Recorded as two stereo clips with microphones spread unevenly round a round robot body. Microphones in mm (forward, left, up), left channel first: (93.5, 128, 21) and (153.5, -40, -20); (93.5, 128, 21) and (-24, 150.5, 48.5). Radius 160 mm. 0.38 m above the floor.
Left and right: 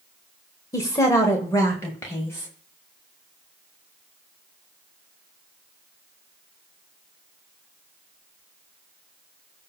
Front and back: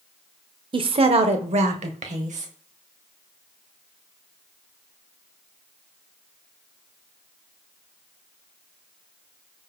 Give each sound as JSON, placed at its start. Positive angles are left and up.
{"t": 0.7, "sound": "a woman speaking", "azimuth_deg": -170, "distance_m": 1.0}